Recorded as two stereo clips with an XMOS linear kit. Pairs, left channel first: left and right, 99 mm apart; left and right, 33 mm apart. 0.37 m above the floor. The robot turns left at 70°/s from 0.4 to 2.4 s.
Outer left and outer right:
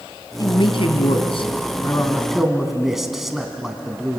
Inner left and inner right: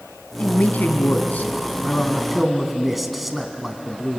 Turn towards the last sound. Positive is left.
turn(degrees=0)